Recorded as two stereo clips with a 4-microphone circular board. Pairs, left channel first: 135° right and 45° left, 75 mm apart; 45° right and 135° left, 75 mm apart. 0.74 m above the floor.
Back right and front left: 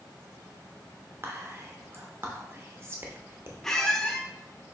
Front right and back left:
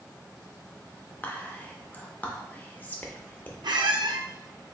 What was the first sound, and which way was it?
Whispering, 10° left.